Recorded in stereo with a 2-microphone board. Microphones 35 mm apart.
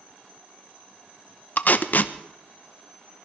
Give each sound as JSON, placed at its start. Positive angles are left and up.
{"t": 1.6, "sound": "tape being pulled", "side_deg": 55, "distance_m": 0.8}